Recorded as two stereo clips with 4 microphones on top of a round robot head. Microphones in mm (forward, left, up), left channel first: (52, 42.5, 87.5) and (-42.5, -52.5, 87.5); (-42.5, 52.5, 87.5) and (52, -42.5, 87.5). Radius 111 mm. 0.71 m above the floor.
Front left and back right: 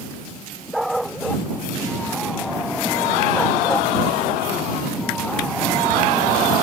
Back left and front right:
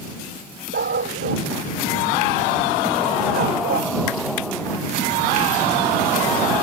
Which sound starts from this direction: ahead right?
A dog barking, at 0.7 s.